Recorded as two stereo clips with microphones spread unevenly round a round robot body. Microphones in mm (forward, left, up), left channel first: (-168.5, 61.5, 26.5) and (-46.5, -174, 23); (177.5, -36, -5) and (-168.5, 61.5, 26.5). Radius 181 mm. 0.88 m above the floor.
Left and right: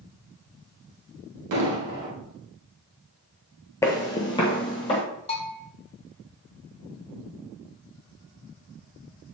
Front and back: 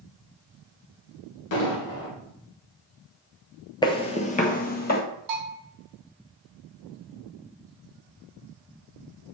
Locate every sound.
1.5 s an explosion: 60° right, 1.7 m
3.8 s footsteps: 55° left, 0.9 m; by 5.0 s 45° left, 1.4 m
5.3 s a bell: 175° right, 2.5 m